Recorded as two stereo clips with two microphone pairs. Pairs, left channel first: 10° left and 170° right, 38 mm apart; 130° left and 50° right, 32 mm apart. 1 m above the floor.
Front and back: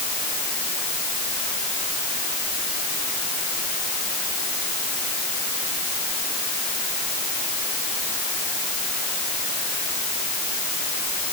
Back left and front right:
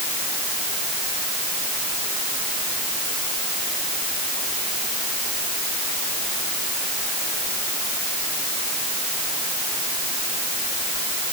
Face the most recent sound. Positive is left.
No sound to turn to.